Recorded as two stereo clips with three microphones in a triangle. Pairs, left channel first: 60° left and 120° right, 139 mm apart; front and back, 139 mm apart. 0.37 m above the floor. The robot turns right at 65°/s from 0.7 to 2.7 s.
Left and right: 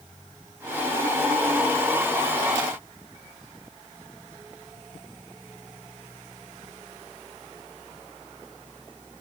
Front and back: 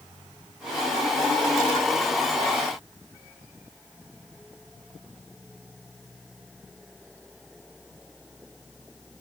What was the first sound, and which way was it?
Only background noise.